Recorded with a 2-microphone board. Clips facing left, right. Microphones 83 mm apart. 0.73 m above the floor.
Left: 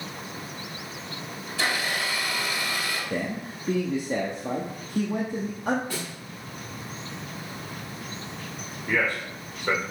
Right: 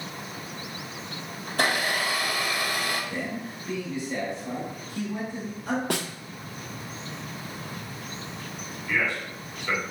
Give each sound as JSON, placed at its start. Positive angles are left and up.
{"t": 1.5, "sound": "a blender", "side_deg": -55, "distance_m": 2.0}
{"t": 3.1, "sound": "a man speaking", "side_deg": 50, "distance_m": 1.0}
{"t": 5.9, "sound": "a snare drum", "side_deg": -65, "distance_m": 0.6}
{"t": 8.9, "sound": "a man speaking", "side_deg": 45, "distance_m": 2.5}